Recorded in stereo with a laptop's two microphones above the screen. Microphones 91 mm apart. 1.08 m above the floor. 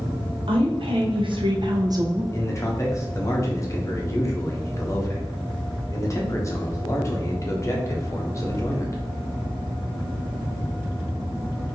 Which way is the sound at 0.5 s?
70° right (ahead or behind).